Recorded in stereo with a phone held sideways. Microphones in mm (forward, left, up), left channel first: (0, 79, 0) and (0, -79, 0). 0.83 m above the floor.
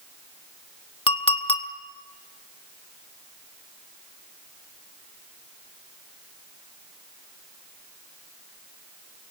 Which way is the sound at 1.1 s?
35° left (ahead or behind).